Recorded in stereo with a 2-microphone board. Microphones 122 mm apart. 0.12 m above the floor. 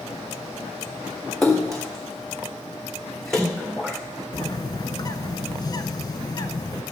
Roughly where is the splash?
Centre.